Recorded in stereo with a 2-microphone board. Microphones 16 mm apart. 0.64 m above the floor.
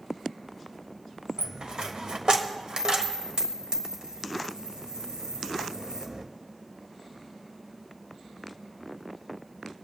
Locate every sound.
1.4 s a dropped coin: 65° right (ahead or behind), 1.3 m